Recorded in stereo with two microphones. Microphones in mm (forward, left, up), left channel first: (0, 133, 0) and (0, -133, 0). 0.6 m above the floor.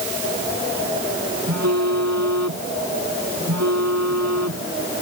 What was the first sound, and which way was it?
A phone buzzing, 80° right.